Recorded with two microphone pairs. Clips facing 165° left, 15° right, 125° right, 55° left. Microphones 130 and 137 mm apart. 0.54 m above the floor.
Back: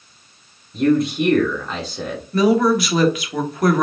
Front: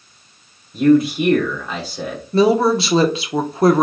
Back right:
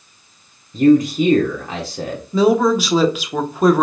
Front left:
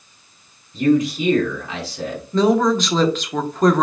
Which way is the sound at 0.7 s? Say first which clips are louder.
Front 4 dB, back right 5 dB; 100° right.